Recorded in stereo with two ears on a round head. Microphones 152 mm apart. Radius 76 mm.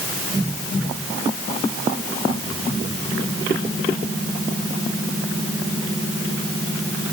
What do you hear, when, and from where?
Only background noise.